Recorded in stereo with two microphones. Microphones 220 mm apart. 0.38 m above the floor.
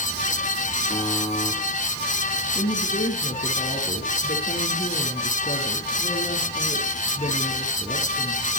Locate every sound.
0.9 s a buzzer: 30° left (ahead or behind), 7.5 m
2.5 s a woman speaking: 35° left (ahead or behind), 5.5 m